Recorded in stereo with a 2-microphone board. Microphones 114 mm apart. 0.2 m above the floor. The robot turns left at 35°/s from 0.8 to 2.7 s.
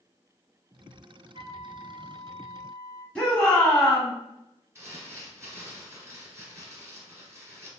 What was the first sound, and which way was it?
A flute, 115° right.